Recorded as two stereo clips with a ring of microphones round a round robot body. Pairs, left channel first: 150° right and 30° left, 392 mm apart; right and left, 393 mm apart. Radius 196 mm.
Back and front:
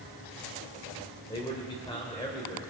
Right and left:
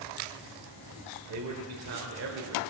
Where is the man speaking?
135° left, 1.8 m.